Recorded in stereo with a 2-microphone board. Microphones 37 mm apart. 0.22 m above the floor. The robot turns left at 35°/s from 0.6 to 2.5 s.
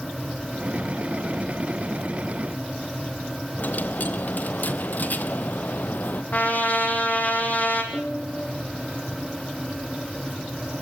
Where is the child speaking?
No child speaking in this recording.